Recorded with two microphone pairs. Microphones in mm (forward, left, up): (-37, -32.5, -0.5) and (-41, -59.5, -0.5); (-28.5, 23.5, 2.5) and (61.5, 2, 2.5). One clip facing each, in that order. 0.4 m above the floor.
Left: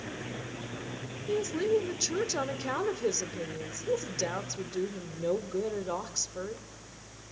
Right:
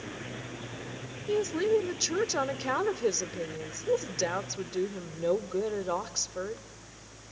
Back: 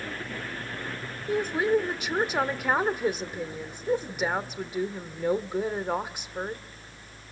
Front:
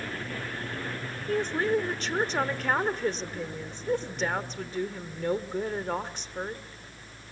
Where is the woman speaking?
130° right, 1.1 m.